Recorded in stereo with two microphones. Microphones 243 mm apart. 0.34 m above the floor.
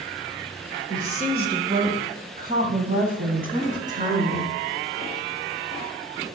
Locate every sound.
0.9 s a woman speaking: 30° right (ahead or behind), 1.6 m